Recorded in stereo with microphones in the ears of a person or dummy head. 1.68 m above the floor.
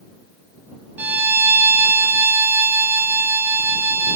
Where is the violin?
10° right (ahead or behind).